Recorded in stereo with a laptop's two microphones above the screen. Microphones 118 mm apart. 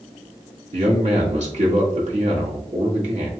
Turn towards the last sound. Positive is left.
turn(degrees=-75)  # may be behind; listen again after turning